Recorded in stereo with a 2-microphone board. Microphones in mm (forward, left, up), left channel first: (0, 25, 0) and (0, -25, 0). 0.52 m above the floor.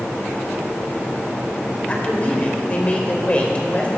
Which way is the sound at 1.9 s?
30° left (ahead or behind).